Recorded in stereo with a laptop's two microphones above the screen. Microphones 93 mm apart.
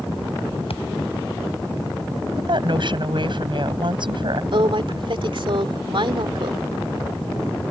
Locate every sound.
0.7 s a thud: 85° left
2.4 s a woman speaking: 60° right (ahead or behind)
4.5 s a woman speaking: 60° right (ahead or behind)